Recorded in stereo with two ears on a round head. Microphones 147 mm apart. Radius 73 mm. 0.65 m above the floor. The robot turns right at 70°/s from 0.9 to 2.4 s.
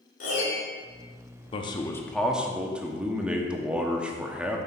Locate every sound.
0.2 s a piano: 45° left (ahead or behind), 2.5 m
1.5 s a man speaking: 130° left, 0.8 m; by 4.6 s 170° right, 0.8 m